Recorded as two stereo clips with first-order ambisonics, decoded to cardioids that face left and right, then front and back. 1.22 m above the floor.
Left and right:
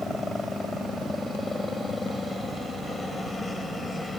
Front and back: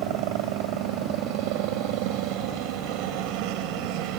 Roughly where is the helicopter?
Behind.